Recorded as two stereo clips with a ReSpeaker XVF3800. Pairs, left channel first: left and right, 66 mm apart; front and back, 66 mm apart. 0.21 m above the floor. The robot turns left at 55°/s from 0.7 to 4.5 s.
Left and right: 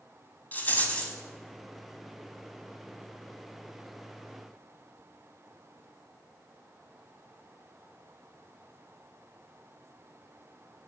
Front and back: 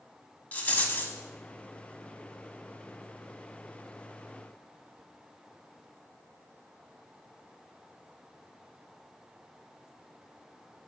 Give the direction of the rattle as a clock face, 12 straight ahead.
10 o'clock.